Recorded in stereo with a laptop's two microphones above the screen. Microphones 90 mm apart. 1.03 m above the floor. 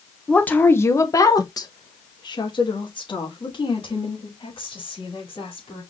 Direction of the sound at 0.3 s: 10° left (ahead or behind).